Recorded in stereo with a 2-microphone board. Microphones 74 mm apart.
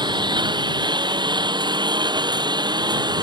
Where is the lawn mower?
90° right; by 3.2 s 70° right (ahead or behind).